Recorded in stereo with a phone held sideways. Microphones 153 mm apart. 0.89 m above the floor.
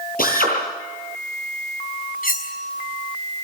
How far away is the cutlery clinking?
About 5 m.